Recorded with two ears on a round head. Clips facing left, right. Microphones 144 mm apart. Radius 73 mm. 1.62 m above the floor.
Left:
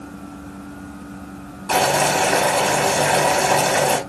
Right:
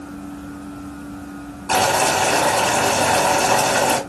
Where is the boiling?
10° left (ahead or behind), 2.5 m.